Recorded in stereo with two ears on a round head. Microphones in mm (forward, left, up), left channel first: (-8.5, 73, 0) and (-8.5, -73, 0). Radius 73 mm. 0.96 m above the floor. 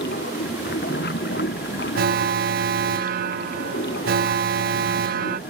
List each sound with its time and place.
0.0 s running water: 60° left (ahead or behind)
2.0 s an alarm: 60° right (ahead or behind)